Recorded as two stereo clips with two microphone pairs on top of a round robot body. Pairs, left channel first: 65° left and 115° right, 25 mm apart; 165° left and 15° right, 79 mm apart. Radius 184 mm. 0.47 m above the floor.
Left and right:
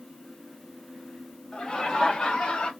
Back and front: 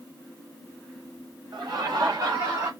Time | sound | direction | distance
1.5 | laughter | 15° left | 3 m